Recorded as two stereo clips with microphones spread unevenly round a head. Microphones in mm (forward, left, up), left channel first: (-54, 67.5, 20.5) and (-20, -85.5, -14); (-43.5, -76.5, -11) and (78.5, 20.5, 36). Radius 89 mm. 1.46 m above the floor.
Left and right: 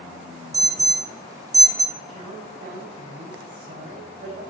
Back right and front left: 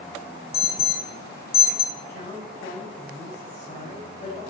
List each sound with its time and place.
0.5 s an alarm: 145° right, 2.5 m
2.0 s a woman speaking: 95° right, 7.5 m